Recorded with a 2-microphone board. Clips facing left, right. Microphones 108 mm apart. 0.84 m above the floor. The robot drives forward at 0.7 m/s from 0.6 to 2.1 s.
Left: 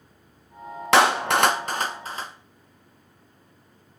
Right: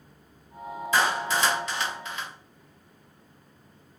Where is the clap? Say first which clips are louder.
Left 7 dB; 80° left, 0.6 m; by 2.3 s 40° left (ahead or behind), 1.0 m.